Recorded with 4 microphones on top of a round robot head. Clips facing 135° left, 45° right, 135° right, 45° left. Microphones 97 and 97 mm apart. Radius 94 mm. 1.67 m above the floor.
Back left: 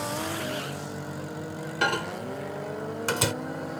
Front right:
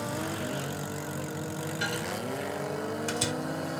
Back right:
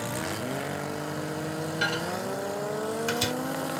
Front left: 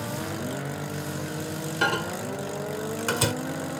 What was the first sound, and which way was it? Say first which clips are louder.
A microwave: back left 7 dB, front left 5 dB; 95° left.